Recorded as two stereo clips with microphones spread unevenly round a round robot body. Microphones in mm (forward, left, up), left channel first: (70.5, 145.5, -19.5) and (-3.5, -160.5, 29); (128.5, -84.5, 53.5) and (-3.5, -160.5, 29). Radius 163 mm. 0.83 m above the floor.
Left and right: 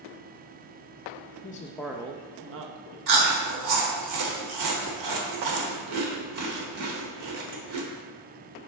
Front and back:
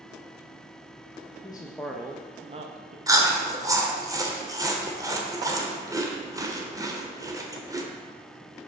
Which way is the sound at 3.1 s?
80° right.